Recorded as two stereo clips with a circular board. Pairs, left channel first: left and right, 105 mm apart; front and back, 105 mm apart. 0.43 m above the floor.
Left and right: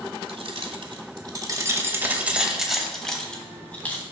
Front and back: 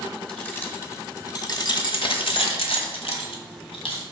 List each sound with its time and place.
0.3 s keys jangling: 75° right, 1.2 m; by 4.0 s 20° left, 1.8 m